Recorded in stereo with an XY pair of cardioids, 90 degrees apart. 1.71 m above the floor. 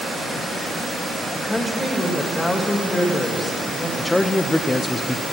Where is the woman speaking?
20° left, 2.5 m.